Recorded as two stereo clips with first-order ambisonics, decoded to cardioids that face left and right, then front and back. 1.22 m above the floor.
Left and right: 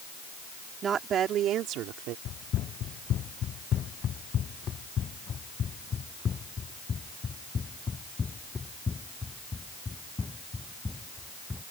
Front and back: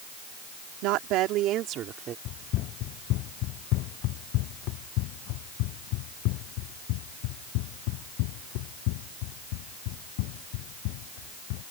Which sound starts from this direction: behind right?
A woman speaking, at 0.8 s.